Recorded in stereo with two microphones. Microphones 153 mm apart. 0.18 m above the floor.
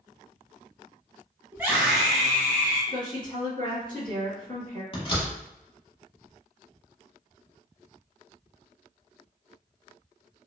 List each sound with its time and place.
1.5 s a scream: 15° right (ahead or behind), 1.1 m; by 2.8 s 15° left (ahead or behind), 1.1 m
2.9 s a woman speaking: 30° left (ahead or behind), 1.8 m
4.9 s a door slam: 35° left (ahead or behind), 0.9 m